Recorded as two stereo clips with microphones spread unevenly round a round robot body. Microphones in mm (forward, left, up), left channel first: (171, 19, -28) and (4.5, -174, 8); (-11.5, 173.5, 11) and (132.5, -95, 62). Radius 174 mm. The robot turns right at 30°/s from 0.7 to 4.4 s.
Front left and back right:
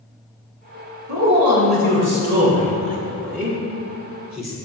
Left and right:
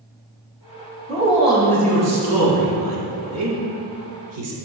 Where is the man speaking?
140° right, 2 m; by 4.5 s 40° right, 2 m.